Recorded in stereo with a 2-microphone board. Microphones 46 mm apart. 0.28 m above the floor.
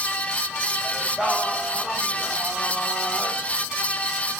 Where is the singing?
20° right (ahead or behind), 5.5 m.